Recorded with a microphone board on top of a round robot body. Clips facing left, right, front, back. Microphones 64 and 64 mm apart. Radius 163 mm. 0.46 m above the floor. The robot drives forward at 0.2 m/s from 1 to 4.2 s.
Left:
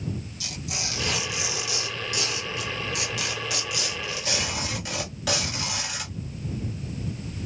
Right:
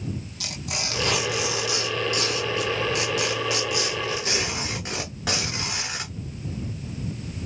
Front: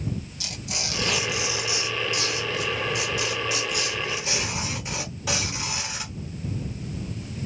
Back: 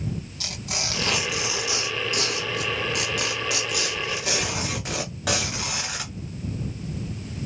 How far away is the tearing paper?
About 0.8 m.